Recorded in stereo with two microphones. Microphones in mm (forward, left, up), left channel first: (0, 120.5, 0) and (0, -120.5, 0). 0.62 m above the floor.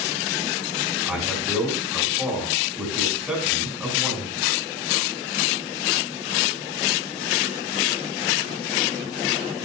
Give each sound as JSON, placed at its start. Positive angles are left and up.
{"t": 1.1, "sound": "a man speaking", "side_deg": -5, "distance_m": 5.5}